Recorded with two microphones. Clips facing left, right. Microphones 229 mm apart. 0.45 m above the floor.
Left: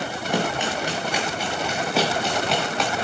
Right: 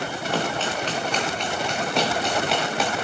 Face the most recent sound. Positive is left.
turn(degrees=-5)  # may be behind; listen again after turning